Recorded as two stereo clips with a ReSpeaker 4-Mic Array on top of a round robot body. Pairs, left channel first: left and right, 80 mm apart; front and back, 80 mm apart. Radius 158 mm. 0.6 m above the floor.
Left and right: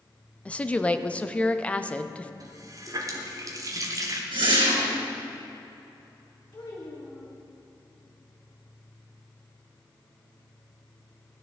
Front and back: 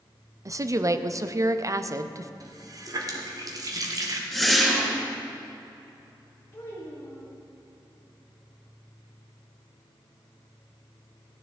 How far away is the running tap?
About 1.2 m.